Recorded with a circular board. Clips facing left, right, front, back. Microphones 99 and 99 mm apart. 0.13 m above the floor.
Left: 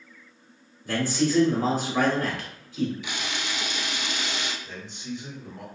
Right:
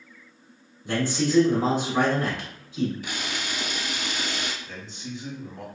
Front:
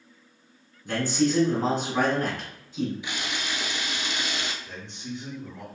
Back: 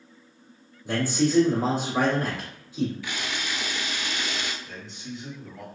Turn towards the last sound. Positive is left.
turn(degrees=0)